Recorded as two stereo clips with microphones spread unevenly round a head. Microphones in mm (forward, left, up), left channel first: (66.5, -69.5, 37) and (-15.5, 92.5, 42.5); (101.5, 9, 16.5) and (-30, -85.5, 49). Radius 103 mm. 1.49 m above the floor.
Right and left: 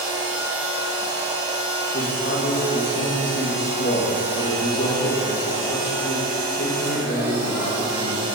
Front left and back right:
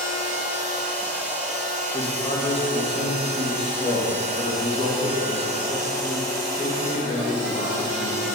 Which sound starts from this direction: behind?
A machine running, at 0.0 s.